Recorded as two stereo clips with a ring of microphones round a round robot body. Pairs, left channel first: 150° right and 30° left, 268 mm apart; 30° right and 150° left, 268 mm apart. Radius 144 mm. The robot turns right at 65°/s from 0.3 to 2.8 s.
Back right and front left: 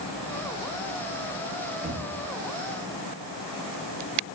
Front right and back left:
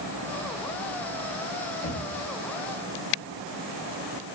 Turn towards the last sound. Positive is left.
turn(degrees=25)